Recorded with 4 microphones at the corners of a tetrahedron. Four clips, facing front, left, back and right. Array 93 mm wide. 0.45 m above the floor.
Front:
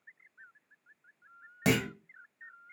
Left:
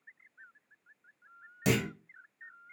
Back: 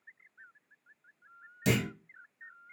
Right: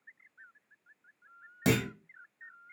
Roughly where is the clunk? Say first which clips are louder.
Right 1 dB, front 2 dB; ahead.